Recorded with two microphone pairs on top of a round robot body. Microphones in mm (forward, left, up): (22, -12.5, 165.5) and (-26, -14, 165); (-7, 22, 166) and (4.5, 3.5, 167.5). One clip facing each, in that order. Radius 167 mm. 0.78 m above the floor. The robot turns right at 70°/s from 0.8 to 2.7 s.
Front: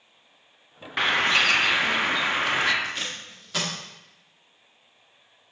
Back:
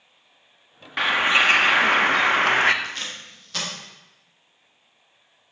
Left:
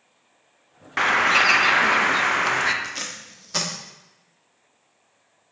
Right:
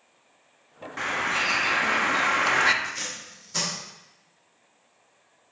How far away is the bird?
About 0.7 m.